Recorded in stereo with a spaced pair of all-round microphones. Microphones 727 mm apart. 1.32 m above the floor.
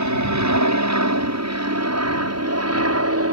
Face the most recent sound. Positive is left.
turn(degrees=-20)  # may be behind; listen again after turning